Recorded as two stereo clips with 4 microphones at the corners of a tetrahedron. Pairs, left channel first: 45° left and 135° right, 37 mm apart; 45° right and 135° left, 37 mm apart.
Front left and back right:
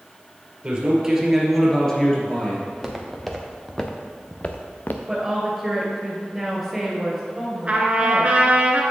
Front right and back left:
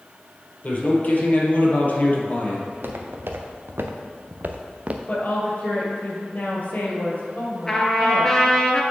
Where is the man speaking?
75° right, 2 m; by 2.6 s 5° right, 2 m.